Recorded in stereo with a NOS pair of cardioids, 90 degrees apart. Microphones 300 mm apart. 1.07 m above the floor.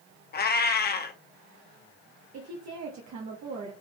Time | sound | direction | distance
0.3 | a cat meowing | 35° left | 0.9 m
2.3 | a woman speaking | 60° right | 1.2 m